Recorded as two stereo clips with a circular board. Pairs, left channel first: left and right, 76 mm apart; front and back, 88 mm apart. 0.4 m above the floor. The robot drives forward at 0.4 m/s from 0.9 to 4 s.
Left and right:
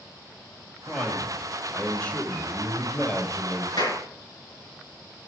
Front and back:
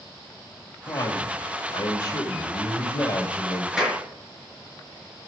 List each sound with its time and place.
0.9 s a man speaking: 15° left, 2.5 m; by 3.7 s 35° left, 1.7 m
3.8 s a clap: 95° left, 5.5 m